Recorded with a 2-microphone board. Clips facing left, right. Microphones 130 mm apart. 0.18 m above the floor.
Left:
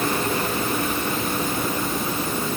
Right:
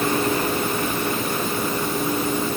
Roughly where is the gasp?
No gasp in this recording.